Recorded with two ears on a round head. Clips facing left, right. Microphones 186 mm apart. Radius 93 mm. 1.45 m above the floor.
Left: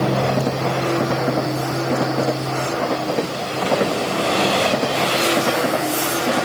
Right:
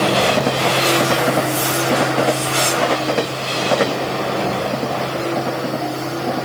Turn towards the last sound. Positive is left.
No sound to turn to.